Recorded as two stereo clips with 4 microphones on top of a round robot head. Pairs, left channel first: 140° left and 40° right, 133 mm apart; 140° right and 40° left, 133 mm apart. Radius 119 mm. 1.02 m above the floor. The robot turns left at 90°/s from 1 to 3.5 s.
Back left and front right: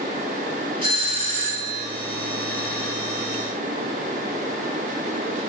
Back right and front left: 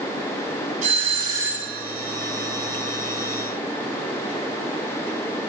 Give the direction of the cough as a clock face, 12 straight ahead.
No cough in this recording.